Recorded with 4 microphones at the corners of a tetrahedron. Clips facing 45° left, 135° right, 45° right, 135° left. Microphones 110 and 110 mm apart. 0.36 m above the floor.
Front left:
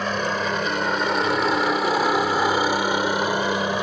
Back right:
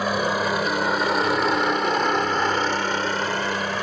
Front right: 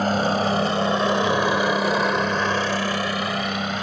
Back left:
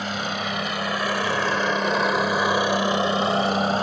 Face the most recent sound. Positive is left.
turn(degrees=110)